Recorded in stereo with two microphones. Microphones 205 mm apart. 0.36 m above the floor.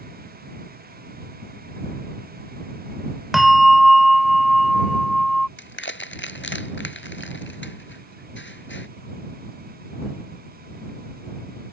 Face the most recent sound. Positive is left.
turn(degrees=70)  # may be behind; listen again after turning